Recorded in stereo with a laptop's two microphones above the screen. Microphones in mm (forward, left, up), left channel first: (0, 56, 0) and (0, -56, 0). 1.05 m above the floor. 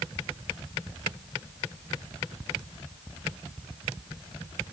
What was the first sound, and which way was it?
Only background noise.